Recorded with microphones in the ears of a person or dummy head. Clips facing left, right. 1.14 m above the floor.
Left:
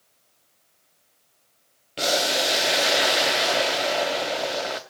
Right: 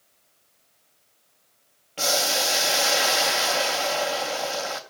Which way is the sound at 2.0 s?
20° left (ahead or behind).